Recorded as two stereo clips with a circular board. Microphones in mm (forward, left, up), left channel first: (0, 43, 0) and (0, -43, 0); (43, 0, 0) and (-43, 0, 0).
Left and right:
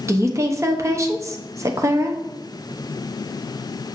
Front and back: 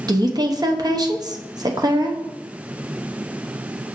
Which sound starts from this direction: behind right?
A woman speaking, at 0.1 s.